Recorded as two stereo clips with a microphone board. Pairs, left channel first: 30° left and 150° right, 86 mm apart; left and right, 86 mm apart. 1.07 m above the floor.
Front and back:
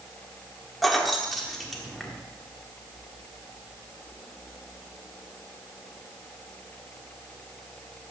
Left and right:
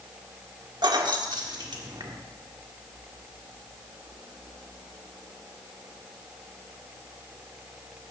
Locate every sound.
0.8 s keys jangling: 60° right, 1.4 m